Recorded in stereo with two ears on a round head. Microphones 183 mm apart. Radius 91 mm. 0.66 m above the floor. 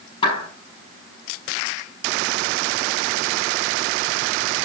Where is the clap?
25° left (ahead or behind), 7.5 m.